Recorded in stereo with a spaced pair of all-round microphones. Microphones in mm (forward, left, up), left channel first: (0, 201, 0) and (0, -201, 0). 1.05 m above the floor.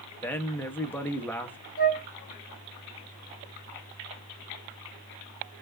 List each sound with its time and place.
0.2 s a man speaking: 5° left (ahead or behind), 1.0 m
1.8 s a flute: 20° left (ahead or behind), 1.3 m